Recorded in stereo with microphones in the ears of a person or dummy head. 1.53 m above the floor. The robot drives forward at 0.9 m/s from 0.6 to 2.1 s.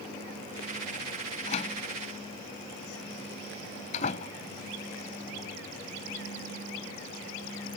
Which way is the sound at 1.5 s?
35° left (ahead or behind).